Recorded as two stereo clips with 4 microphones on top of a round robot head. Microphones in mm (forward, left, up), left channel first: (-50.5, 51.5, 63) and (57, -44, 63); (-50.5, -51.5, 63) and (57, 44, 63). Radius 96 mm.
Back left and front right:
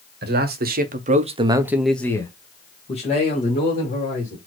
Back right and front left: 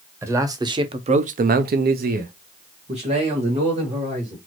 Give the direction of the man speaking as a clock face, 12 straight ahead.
1 o'clock.